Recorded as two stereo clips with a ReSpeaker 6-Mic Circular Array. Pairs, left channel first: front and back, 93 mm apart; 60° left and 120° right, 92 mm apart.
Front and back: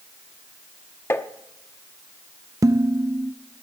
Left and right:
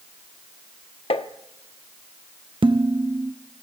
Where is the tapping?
65° left, 0.8 m.